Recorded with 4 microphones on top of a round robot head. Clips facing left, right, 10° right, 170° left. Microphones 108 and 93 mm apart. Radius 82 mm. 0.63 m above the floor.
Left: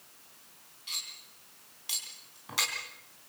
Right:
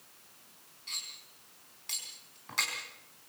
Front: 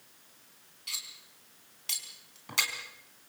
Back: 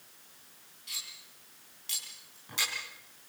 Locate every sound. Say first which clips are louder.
0.9 s cutlery clinking: left 2 dB, front 2 dB; 10° left, 4 m